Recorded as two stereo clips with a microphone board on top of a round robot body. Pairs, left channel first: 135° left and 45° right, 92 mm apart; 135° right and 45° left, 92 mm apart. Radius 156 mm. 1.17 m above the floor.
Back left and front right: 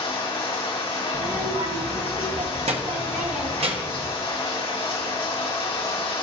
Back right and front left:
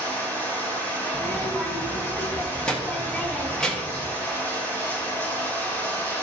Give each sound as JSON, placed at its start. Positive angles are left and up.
{"t": 0.0, "sound": "running water", "azimuth_deg": 155, "distance_m": 2.5}
{"t": 1.1, "sound": "a child speaking", "azimuth_deg": -55, "distance_m": 1.5}